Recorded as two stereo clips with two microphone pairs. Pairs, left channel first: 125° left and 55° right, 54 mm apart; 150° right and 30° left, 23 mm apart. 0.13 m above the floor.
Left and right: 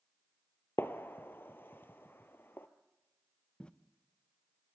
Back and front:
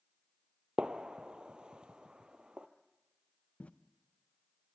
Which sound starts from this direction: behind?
Footsteps, at 3.6 s.